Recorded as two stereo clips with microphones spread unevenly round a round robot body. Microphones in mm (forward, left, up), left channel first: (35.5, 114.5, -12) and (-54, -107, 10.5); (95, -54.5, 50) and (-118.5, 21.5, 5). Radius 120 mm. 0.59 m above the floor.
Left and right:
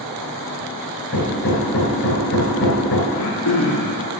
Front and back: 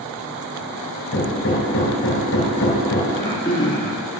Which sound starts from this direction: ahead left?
Throat clearing, at 3.1 s.